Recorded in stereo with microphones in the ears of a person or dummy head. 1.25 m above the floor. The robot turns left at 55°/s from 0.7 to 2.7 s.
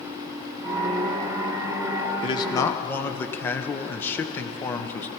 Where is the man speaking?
30° left (ahead or behind), 0.8 m; by 5.1 s 15° left (ahead or behind), 0.8 m.